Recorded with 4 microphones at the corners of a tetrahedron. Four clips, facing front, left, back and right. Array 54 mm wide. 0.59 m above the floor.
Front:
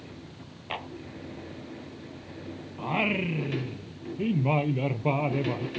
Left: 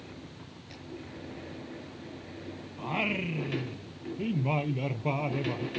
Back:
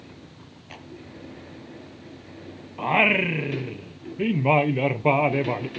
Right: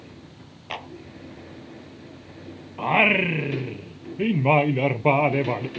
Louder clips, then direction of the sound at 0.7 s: Right 16 dB, front 9 dB; 60° right.